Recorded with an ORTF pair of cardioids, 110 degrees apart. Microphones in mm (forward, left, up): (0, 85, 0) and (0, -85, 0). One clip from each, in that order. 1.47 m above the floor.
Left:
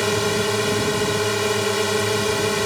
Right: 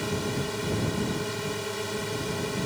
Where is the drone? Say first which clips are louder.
Left 10 dB; 65° left.